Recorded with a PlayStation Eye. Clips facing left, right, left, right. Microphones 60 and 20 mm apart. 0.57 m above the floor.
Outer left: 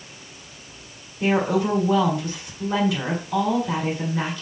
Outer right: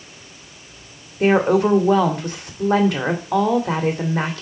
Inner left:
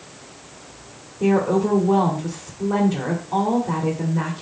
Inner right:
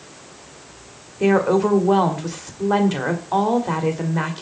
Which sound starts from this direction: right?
A woman speaking, at 1.2 s.